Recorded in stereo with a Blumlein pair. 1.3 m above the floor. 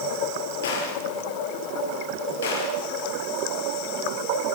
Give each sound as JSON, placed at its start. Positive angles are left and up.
{"t": 0.6, "sound": "a gunshot", "azimuth_deg": 60, "distance_m": 8.5}